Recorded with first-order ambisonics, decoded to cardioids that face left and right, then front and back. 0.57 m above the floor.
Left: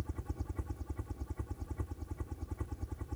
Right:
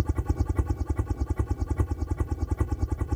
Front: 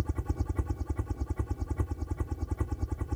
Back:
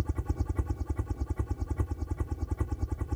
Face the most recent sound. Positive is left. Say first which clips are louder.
# right 13 dB, even
turn(degrees=-90)